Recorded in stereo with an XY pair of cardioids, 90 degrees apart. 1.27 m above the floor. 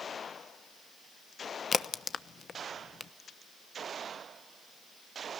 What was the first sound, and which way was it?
A crack, 55° left.